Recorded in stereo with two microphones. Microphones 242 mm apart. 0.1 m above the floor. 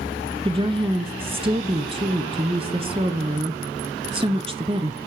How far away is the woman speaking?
About 1.1 m.